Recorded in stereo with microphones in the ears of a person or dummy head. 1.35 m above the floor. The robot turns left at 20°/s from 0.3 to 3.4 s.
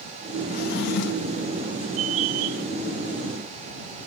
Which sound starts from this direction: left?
A drawer, at 0.5 s.